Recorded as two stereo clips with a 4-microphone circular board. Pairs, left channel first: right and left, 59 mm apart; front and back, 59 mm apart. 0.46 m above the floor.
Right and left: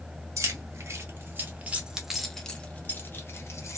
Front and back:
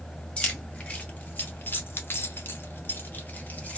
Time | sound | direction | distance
0.4 | keys jangling | 65° left | 1.2 m